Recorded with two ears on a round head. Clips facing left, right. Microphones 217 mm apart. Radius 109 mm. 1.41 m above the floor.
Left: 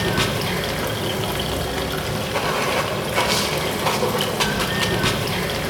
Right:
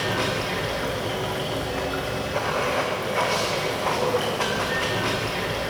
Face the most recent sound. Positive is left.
turn(degrees=55)  # may be behind; listen again after turning